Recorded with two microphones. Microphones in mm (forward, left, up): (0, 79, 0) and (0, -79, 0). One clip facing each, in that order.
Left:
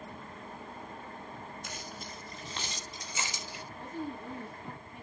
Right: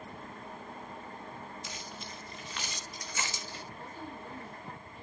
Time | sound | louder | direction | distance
1.6 | keys jangling | left 1 dB | 55° left (ahead or behind) | 2 m
3.7 | a woman speaking | left 5 dB | 65° left (ahead or behind) | 3.5 m